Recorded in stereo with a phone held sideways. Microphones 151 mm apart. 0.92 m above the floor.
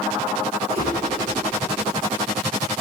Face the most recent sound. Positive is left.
turn(degrees=-45)  # may be behind; listen again after turning